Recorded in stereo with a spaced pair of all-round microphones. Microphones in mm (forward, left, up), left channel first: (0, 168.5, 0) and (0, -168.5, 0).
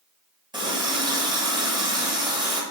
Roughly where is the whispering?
I don't hear whispering.